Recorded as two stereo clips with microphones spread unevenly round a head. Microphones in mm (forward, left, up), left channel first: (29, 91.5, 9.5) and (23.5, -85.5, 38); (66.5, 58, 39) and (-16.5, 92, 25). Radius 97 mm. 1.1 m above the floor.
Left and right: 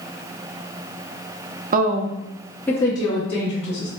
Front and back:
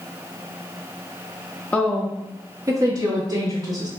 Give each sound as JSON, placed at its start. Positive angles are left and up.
{"t": 1.7, "sound": "a woman speaking", "azimuth_deg": -105, "distance_m": 0.6}